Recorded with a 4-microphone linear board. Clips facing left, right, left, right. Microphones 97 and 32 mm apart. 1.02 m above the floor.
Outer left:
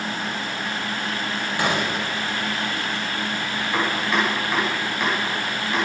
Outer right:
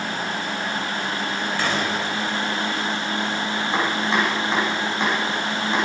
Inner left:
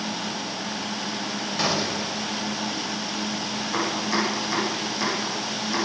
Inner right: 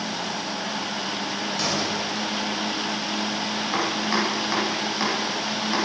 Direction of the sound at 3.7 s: 25° right (ahead or behind).